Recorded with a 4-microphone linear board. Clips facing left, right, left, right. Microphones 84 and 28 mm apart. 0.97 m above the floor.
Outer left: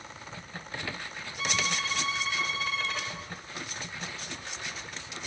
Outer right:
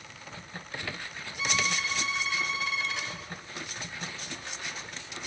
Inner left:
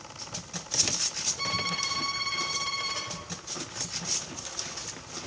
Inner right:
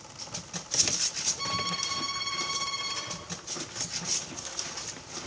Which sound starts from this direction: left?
A violin, at 1.4 s.